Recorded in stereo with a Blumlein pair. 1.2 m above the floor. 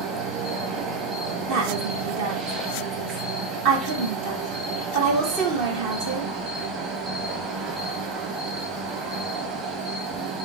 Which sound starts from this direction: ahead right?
A woman speaking, at 1.5 s.